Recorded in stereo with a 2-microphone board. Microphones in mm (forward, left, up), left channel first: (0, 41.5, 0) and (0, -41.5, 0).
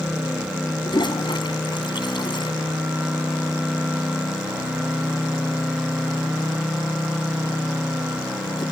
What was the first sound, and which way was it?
A toilet flushing, 70° left (ahead or behind).